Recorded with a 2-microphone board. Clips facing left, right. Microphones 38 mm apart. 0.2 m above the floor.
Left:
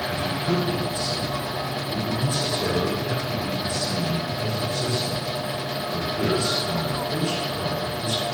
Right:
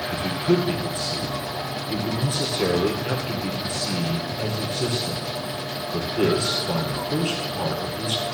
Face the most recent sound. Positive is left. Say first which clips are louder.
# right 5 dB
turn(degrees=-45)  # may be behind; listen again after turning